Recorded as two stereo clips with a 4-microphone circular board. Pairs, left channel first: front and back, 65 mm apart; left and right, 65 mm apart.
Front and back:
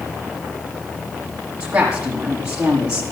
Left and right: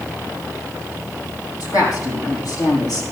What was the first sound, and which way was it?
A woman speaking, 105° left.